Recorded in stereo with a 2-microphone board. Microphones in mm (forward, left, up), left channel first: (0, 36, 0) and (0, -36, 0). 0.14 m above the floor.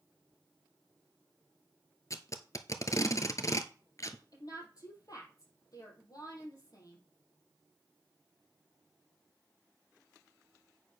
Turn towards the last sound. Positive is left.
turn(degrees=55)  # may be behind; listen again after turning